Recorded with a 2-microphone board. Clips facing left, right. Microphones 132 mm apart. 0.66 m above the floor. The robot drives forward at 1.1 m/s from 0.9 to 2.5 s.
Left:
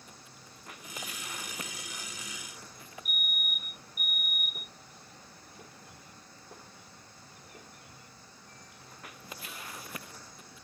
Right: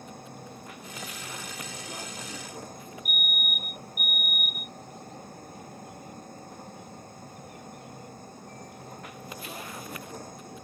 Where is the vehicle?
50° right (ahead or behind); by 10.6 s 45° right (ahead or behind).